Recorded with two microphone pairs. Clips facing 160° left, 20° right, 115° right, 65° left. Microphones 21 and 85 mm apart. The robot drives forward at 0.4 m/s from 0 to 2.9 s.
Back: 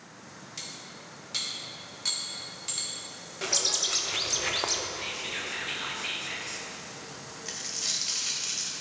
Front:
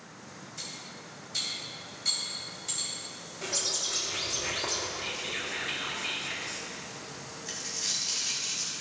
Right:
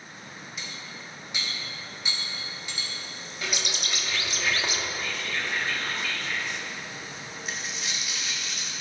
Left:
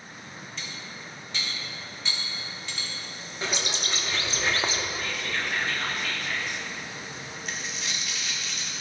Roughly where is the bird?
Behind left.